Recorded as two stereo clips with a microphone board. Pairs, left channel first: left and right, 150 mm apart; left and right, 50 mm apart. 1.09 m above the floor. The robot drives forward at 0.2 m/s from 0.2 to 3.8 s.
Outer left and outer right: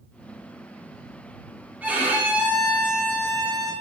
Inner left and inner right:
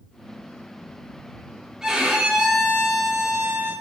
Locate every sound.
1.8 s a violin: 10° right (ahead or behind), 0.5 m; by 3.7 s 5° right (ahead or behind), 0.9 m